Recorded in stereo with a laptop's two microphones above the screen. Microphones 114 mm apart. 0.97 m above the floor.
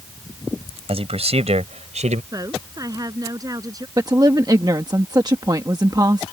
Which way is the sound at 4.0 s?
35° right (ahead or behind).